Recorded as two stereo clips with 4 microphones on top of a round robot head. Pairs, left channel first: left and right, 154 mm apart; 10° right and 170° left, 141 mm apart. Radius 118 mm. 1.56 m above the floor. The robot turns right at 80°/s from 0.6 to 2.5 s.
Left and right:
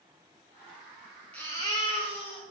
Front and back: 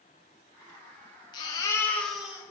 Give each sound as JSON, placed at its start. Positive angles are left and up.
{"t": 1.3, "sound": "a baby crying", "azimuth_deg": 10, "distance_m": 1.0}